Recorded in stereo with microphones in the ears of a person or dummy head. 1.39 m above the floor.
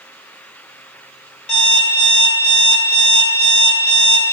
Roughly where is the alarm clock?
Left.